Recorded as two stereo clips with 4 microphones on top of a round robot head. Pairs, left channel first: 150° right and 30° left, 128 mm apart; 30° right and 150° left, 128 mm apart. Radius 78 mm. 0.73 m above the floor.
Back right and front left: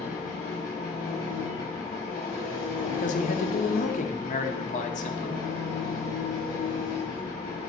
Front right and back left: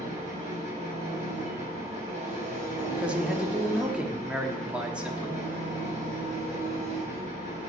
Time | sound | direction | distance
0.0 | an engine running | 175° right | 4.5 m
2.9 | a man speaking | 130° right | 1.3 m